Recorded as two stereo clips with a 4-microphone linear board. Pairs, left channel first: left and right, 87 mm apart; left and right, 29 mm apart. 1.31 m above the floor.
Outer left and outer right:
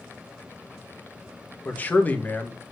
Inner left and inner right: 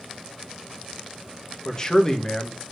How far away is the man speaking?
About 1.6 m.